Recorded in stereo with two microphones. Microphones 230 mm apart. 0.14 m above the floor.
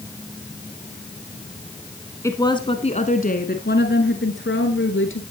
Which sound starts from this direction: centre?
A woman speaking, at 2.2 s.